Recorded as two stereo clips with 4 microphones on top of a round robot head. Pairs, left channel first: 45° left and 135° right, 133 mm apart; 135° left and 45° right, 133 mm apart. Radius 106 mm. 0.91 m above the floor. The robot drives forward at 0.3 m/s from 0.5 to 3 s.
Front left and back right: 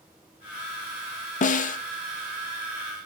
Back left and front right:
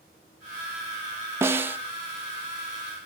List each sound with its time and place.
1.4 s a snare drum: 25° left, 0.8 m; by 1.8 s 30° left, 0.7 m